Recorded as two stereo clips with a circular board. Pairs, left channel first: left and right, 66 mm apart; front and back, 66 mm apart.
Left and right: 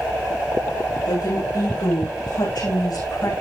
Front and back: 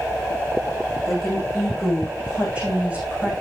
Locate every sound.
1.1 s a woman speaking: 95° left, 8.5 m; by 3.3 s 115° left, 8.5 m